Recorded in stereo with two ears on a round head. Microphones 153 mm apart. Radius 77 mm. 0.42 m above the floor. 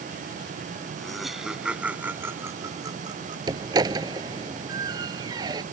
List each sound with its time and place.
1.0 s laughter: centre (ahead or behind); by 3.4 s 30° right (ahead or behind)
3.5 s a door slam: 25° right (ahead or behind)